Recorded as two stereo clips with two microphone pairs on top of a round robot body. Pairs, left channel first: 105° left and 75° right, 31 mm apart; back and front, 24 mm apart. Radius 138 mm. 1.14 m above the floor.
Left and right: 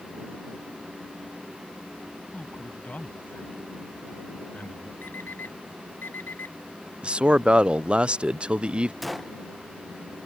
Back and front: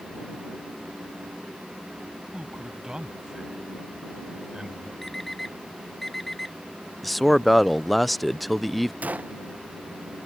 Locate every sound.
2.3 s a man speaking: 60° left; by 4.9 s 65° left
5.0 s an alarm clock: 95° left
7.0 s a man speaking: 100° right
9.0 s a gunshot: 10° left